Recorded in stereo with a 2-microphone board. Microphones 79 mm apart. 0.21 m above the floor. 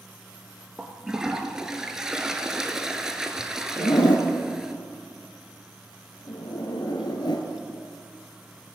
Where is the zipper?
70° left (ahead or behind), 1.3 m.